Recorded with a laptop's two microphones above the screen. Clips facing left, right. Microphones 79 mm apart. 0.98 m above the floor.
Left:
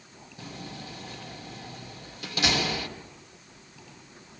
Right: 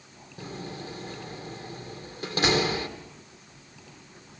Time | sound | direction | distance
0.4 | a door slam | 40° right (ahead or behind) | 1.7 m